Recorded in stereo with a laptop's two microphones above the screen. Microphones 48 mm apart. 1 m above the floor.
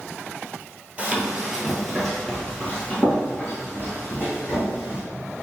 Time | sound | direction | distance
1.0 | running footsteps | 25° right (ahead or behind) | 1.1 m